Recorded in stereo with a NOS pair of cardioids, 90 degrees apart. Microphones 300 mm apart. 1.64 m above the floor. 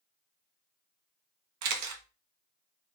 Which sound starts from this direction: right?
A camera shutter, at 1.6 s.